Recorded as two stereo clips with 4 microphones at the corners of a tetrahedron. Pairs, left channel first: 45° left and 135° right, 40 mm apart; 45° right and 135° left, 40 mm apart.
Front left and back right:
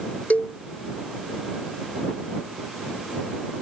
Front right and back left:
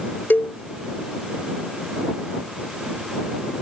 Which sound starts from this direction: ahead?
A cowbell, at 0.3 s.